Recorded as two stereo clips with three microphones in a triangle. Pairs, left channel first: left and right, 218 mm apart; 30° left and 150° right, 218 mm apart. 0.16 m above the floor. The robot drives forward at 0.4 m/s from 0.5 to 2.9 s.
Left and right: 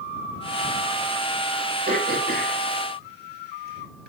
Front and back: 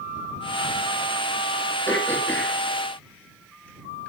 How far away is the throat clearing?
About 3.5 m.